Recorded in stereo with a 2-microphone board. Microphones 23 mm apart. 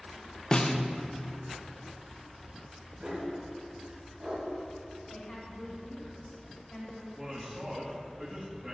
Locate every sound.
0.5 s a snare drum: 30° left (ahead or behind), 0.5 m
3.0 s a dog barking: 35° right (ahead or behind), 3 m
5.1 s a woman speaking: 35° left (ahead or behind), 1.6 m
7.2 s a man speaking: 20° right (ahead or behind), 1.3 m